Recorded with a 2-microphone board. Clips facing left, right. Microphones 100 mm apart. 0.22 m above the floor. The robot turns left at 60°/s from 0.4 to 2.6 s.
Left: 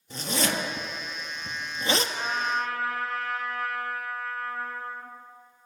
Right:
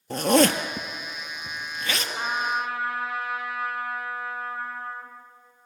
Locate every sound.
0.1 s a zipper: 65° right (ahead or behind), 1.3 m; by 2.0 s 35° left (ahead or behind), 1.3 m
2.1 s a trumpet: 30° right (ahead or behind), 2.5 m; by 5.1 s 10° right (ahead or behind), 2.5 m